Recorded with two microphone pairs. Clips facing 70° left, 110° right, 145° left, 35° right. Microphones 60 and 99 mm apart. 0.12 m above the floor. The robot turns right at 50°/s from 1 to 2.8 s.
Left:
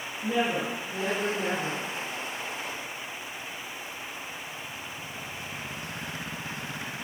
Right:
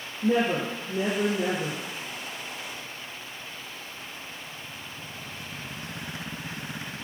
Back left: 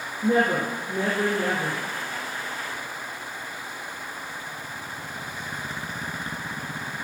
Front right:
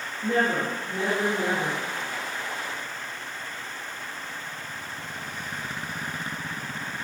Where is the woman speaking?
155° right, 4 m; by 1.8 s 115° right, 4 m.